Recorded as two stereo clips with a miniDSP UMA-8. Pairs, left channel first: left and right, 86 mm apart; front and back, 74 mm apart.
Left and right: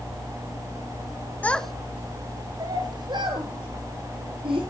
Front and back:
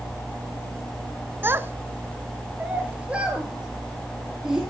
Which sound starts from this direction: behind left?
A child speaking, at 1.4 s.